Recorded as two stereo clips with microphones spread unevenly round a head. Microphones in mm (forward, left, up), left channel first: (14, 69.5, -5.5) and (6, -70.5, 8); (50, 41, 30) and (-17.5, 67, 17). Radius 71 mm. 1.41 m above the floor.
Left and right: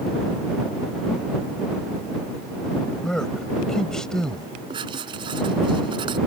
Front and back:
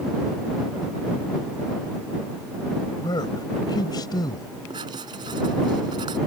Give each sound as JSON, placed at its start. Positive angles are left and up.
{"t": 3.0, "sound": "a man speaking", "azimuth_deg": 0}
{"t": 4.7, "sound": "writing", "azimuth_deg": -155}